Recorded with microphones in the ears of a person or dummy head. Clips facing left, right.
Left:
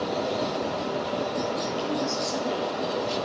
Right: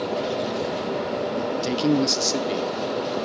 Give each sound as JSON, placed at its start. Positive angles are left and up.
{"t": 1.6, "sound": "a man speaking", "side_deg": -80, "distance_m": 0.5}